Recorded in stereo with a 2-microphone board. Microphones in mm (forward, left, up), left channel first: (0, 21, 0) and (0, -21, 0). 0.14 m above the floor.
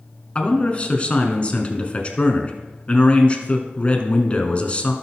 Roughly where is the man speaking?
Left.